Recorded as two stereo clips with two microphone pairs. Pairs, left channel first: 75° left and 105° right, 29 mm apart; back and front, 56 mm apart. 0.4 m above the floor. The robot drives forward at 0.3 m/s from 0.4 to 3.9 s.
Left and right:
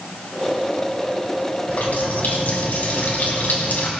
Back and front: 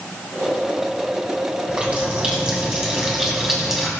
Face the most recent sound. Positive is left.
turn(degrees=90)